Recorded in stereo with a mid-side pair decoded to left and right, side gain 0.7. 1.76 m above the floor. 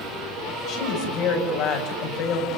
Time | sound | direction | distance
0.7 | a woman speaking | 65° left | 10 m